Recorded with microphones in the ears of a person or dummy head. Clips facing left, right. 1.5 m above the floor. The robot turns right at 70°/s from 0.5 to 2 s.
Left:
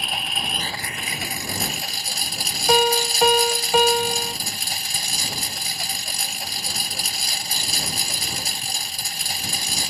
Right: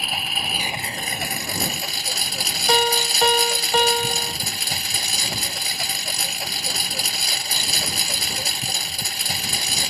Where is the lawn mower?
175° right; by 9.9 s 70° right.